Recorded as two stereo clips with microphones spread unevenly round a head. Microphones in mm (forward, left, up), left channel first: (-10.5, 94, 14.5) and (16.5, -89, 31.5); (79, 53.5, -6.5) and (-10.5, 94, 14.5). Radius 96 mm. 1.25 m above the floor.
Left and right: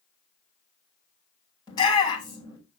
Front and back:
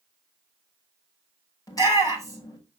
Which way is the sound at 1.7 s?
30° left.